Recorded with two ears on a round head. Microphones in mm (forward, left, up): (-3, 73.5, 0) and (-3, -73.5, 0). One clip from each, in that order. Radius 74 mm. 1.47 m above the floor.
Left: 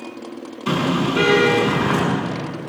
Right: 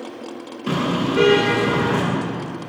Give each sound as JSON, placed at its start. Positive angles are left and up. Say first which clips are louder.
{"t": 0.7, "sound": "a car horn", "louder": "left 2 dB", "side_deg": 30, "distance_m": 7.5}